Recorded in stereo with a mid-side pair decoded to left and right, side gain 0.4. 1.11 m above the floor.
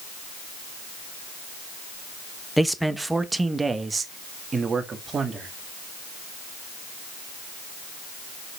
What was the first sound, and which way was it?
A man speaking, straight ahead.